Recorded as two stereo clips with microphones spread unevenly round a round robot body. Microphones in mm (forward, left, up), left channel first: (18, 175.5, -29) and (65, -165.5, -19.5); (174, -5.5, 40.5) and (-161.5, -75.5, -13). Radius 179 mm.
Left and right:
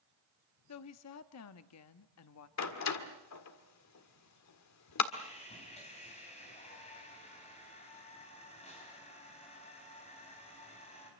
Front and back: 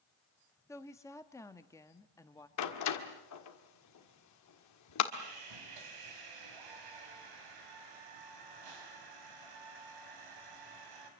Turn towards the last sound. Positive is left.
turn(degrees=170)